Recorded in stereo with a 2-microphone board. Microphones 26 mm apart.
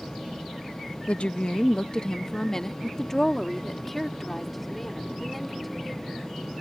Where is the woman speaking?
50° left (ahead or behind); by 6.1 s 5° right (ahead or behind).